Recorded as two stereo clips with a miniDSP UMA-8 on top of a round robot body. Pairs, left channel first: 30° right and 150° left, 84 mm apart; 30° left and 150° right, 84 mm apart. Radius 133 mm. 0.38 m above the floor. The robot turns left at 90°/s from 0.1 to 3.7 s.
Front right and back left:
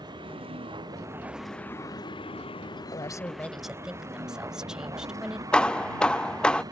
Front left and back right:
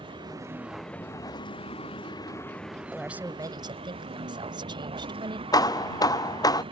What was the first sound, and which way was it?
A vehicle, 175° right.